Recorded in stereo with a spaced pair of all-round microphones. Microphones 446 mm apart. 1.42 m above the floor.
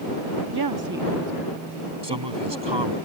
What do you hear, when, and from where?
0.5 s a woman speaking: 60° right (ahead or behind); by 3.0 s 15° left (ahead or behind)
2.0 s a man speaking: 70° right (ahead or behind)